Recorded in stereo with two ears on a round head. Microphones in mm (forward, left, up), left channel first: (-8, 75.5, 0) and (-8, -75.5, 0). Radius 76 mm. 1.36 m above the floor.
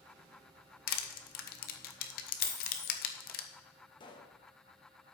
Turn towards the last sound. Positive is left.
turn(degrees=30)  # may be behind; listen again after turning